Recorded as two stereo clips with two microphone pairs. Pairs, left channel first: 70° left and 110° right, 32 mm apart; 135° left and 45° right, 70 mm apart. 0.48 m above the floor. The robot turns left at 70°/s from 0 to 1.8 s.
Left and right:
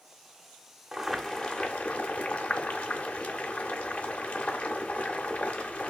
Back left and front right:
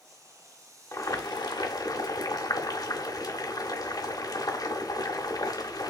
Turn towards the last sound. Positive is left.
turn(degrees=110)